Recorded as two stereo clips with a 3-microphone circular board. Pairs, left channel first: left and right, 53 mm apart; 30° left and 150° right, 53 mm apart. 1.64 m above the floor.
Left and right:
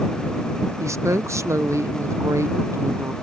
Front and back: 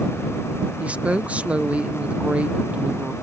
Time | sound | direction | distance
0.8 | a woman speaking | 90° right | ?